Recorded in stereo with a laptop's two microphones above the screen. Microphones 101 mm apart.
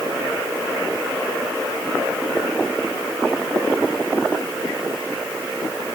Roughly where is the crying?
I don't hear crying.